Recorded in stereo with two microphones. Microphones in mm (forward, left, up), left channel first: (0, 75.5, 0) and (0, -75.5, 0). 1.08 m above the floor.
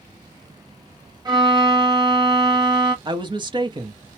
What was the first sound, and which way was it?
A violin, 30° right (ahead or behind).